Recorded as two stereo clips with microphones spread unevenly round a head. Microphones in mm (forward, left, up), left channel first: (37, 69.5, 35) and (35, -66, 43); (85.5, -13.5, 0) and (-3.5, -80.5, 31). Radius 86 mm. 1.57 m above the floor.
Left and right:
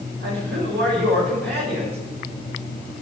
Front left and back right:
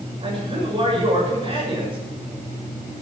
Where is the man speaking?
100° right, 7 m.